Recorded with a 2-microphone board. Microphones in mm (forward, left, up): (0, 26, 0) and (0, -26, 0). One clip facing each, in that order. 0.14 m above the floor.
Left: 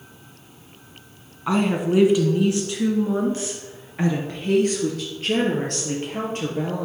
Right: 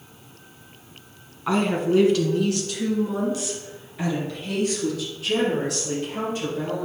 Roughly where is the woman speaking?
Centre.